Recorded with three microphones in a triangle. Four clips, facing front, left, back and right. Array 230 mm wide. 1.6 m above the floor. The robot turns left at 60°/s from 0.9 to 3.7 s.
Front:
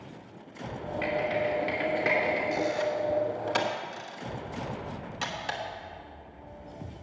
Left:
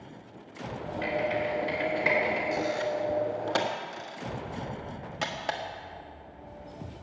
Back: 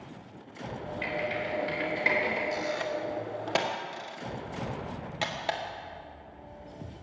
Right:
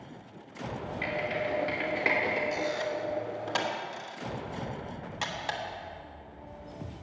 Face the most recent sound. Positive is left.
turn(degrees=130)